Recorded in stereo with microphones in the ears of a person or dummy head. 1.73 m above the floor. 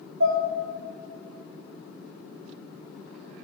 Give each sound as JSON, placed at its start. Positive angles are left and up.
{"t": 0.2, "sound": "dishes clattering", "side_deg": -60, "distance_m": 1.7}